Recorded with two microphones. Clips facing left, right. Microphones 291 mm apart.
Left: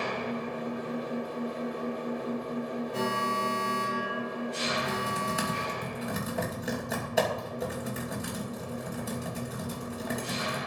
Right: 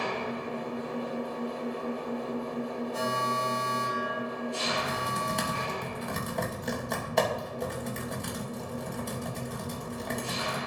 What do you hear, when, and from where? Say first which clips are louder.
0.0 s an engine running: left 1 dB; 20° left (ahead or behind), 5 m
2.9 s an alarm: left 1 dB; 70° left (ahead or behind), 1.8 m
4.7 s typing on a keyboard: left 1 dB; 5° left (ahead or behind), 2.5 m